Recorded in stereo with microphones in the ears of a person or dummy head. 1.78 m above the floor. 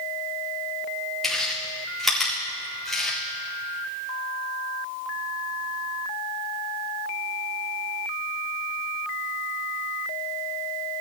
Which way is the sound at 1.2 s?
Centre (ahead or behind).